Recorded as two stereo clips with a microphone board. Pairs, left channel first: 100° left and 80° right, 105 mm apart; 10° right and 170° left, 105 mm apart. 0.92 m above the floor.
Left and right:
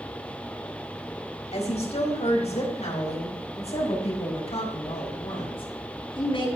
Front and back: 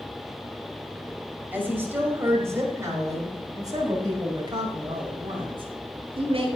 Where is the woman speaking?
95° left, 4.5 m; by 6.5 s 135° left, 5 m.